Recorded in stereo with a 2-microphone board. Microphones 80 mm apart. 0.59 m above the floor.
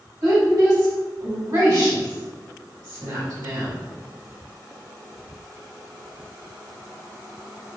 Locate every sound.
0.2 s a woman speaking: 55° right (ahead or behind), 1.8 m